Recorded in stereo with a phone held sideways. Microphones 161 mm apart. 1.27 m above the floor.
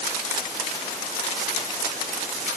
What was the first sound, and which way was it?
Only background noise.